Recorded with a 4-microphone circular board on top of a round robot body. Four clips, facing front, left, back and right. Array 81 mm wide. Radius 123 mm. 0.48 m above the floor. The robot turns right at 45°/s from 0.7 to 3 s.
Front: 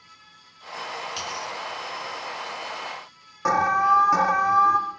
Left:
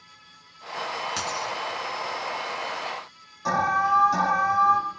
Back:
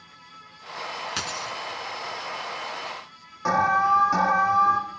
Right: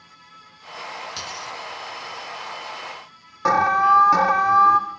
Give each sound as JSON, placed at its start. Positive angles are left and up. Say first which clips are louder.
{"t": 1.2, "sound": "a dropped coin", "louder": "left 4 dB, even", "azimuth_deg": 165, "distance_m": 1.6}
{"t": 3.5, "sound": "an alarm", "louder": "right 6 dB, front 1 dB", "azimuth_deg": -75, "distance_m": 3.0}